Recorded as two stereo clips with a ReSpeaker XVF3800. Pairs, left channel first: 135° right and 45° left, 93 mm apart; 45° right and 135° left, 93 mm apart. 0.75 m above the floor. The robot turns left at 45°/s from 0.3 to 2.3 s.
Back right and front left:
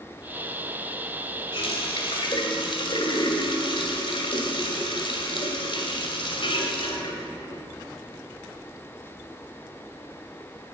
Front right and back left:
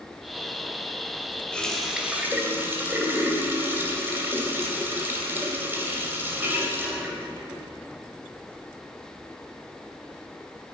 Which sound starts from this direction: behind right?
A running tap, at 1.5 s.